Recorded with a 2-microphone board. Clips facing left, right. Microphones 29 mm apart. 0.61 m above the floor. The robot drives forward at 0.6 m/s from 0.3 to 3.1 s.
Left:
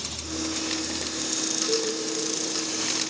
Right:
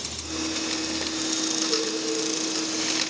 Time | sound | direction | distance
1.7 | a cowbell | 50° left (ahead or behind) | 3 m